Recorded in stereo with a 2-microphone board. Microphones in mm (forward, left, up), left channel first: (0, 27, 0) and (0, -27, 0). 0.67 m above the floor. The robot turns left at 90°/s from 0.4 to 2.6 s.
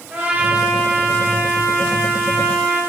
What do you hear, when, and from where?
0.1 s a trumpet: 150° right, 4 m; by 2.8 s 10° left, 4 m